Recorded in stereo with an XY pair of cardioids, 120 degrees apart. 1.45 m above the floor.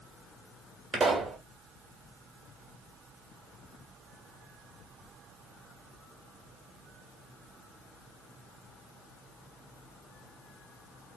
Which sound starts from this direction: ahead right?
A pop, at 0.9 s.